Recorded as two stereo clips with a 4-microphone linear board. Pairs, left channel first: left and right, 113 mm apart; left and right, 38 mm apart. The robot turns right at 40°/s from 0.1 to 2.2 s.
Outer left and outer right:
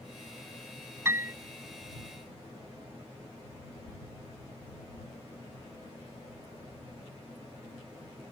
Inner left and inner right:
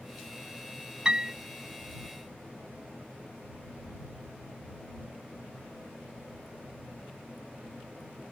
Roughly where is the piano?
Right.